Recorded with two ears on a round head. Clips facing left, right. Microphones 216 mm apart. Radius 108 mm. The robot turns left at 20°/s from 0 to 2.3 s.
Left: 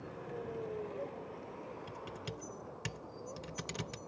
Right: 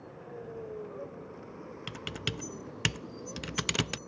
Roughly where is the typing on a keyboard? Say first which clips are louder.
Right 5 dB; right.